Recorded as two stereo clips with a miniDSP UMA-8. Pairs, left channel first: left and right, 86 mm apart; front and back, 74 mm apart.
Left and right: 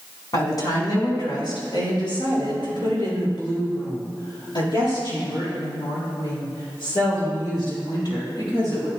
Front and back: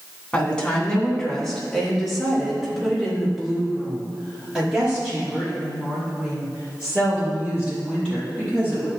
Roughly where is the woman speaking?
Left.